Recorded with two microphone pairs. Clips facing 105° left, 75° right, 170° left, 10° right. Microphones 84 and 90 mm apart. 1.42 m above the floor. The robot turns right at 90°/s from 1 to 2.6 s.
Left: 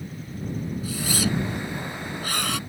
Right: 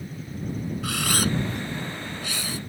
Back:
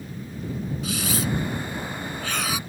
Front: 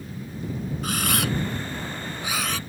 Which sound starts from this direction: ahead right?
A camera shutter, at 0.8 s.